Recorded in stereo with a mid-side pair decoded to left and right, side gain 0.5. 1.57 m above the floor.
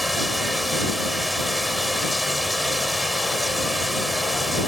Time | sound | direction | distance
0.0 | running water | 5° left | ?